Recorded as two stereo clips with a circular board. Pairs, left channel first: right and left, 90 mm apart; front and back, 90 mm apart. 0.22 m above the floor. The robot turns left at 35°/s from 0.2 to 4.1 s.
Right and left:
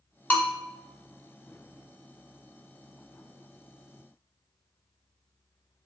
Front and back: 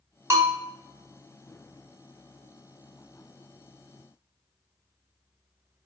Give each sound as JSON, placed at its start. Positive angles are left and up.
{"t": 0.3, "sound": "a bell", "azimuth_deg": -145, "distance_m": 0.9}